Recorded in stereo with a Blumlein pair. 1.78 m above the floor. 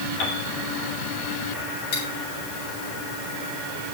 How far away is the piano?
About 6 m.